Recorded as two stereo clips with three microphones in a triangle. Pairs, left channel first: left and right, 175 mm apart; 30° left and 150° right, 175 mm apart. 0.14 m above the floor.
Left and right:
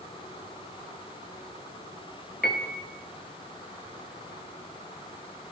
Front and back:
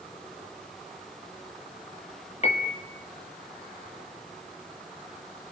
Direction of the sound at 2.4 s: 80° left.